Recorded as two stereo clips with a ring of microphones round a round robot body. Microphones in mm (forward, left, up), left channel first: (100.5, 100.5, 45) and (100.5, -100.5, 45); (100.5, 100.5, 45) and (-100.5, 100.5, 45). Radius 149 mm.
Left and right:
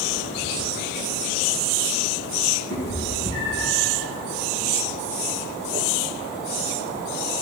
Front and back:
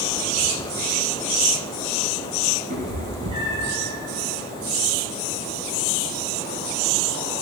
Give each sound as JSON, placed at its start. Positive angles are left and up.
{"t": 2.7, "sound": "a cat meowing", "azimuth_deg": 150, "distance_m": 3.5}